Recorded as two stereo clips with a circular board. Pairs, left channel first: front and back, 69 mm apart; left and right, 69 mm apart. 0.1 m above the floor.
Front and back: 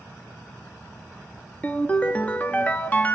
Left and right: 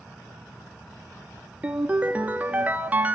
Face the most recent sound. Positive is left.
turn(degrees=-45)